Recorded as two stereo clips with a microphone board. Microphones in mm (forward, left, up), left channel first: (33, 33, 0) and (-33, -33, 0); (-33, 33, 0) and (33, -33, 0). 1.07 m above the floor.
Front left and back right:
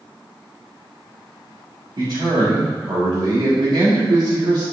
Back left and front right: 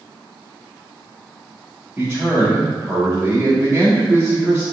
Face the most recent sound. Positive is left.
turn(degrees=-120)